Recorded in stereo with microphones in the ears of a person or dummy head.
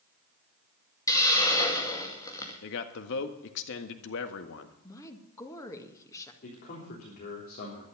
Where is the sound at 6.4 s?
50° left (ahead or behind), 3.5 m.